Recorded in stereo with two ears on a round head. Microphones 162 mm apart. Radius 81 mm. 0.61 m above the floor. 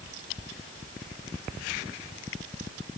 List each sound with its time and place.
Only background noise.